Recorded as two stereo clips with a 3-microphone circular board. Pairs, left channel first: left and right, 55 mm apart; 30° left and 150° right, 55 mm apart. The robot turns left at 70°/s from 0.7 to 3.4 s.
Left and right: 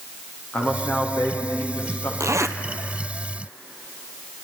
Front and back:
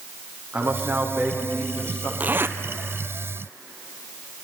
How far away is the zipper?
About 1.0 m.